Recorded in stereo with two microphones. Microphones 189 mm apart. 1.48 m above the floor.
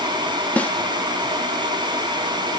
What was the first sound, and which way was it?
A snare drum, 10° left (ahead or behind).